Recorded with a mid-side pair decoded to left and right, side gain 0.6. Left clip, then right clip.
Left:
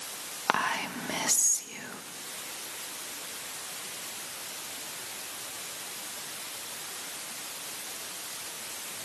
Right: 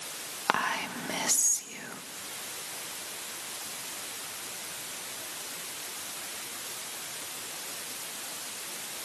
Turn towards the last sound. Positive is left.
turn(degrees=5)